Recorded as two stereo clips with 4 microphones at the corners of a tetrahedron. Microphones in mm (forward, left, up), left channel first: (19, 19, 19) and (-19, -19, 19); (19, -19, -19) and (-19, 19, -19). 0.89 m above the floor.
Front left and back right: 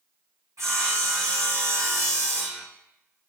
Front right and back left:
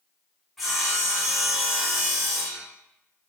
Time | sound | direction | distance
0.6 | sawing | 135° right | 4.5 m